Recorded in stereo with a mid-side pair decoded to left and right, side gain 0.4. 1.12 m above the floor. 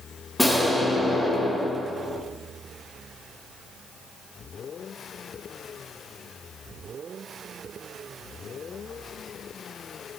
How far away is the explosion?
About 2.5 m.